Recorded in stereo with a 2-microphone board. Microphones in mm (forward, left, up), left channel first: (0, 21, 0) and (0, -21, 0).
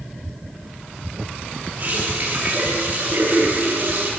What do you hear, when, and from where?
1.8 s a running tap: 50° right (ahead or behind), 6 m